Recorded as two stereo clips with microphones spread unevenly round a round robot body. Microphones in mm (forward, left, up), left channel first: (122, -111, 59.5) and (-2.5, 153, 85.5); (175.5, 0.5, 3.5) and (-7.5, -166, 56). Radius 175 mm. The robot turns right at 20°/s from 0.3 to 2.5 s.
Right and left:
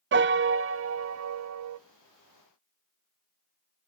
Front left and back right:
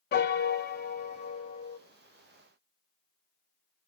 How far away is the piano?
About 0.5 m.